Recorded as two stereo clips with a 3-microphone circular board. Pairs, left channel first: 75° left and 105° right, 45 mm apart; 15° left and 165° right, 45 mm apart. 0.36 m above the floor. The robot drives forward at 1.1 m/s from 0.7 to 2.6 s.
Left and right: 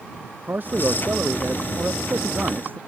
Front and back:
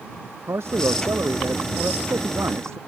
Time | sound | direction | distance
0.5 | a man speaking | 150° right | ?